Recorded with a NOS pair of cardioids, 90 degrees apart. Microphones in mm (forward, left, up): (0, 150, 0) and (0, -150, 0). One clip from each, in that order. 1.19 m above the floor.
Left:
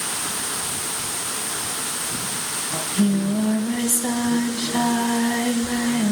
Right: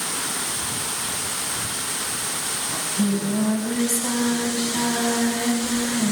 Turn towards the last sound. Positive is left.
turn(degrees=45)